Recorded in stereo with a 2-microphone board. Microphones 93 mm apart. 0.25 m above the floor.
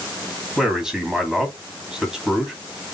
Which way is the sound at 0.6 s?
5° right (ahead or behind).